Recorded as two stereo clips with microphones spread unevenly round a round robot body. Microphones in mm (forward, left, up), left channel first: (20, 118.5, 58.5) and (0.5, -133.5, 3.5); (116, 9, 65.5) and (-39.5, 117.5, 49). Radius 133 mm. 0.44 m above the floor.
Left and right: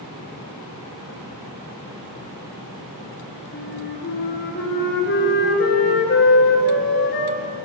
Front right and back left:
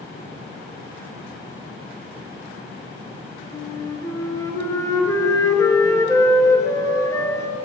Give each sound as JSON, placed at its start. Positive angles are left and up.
{"t": 3.5, "sound": "a flute", "azimuth_deg": 40, "distance_m": 3.0}